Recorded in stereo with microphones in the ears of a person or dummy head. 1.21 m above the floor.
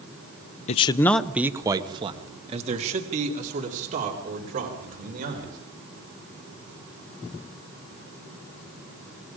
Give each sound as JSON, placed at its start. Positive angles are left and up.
{"t": 0.7, "sound": "a man speaking", "side_deg": 40, "distance_m": 0.7}